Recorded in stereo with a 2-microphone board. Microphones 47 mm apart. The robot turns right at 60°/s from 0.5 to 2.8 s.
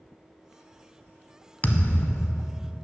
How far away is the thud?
About 0.6 m.